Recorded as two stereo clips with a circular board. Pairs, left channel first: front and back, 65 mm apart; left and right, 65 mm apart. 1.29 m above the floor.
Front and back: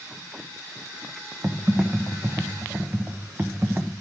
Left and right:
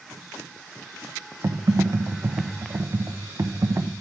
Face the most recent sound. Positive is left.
turn(degrees=-125)